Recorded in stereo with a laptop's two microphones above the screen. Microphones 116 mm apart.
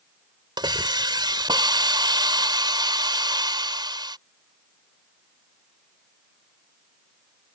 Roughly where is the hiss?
Right.